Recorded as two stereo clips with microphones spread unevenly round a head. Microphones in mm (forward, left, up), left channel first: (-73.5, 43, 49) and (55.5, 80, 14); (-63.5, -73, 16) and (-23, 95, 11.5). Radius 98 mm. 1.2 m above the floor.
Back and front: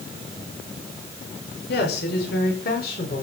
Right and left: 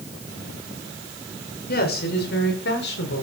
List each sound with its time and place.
1.7 s a woman speaking: 135° right, 5.5 m; by 3.2 s 120° right, 5 m